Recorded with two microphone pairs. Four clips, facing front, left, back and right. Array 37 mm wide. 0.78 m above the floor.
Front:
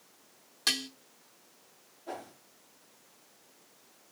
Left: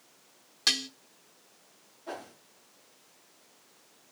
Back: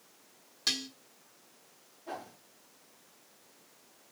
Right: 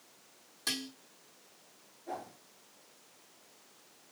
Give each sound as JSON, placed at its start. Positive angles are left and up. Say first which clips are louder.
{"t": 0.7, "sound": "dishes clattering", "louder": "left 8 dB, front 3 dB", "azimuth_deg": 65, "distance_m": 1.2}
{"t": 2.1, "sound": "a whoosh", "louder": "left 1 dB, even", "azimuth_deg": 90, "distance_m": 4.0}